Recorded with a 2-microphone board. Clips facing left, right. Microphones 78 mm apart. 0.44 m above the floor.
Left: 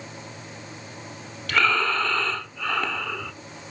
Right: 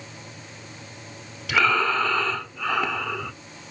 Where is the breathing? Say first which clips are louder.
Right 1 dB; 5° right (ahead or behind), 0.9 m.